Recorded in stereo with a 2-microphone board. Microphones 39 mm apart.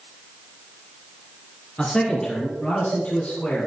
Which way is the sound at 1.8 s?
10° left (ahead or behind).